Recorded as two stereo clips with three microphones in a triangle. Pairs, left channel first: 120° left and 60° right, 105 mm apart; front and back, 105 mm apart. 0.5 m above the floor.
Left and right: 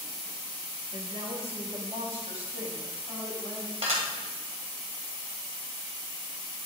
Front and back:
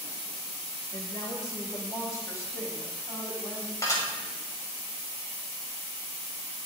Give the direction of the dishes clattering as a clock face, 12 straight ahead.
2 o'clock.